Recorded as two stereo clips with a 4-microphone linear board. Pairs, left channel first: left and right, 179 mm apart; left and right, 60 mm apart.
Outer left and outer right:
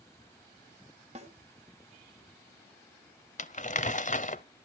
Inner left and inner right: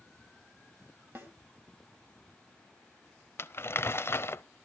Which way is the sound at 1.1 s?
40° right (ahead or behind).